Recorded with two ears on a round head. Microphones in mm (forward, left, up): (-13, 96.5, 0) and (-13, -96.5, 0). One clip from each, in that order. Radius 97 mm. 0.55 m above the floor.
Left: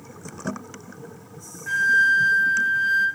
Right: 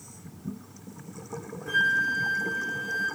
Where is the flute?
80° left, 3 m.